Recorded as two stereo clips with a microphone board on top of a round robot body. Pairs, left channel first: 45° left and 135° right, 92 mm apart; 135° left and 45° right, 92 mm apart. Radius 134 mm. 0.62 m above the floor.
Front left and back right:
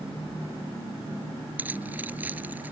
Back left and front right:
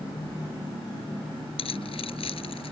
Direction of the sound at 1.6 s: 150° left.